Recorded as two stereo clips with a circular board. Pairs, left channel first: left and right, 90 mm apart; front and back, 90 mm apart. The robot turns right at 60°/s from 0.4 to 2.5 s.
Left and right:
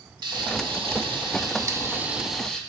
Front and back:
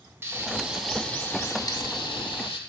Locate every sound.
0.2 s frying: 120° right, 0.5 m; by 2.6 s 10° left, 0.5 m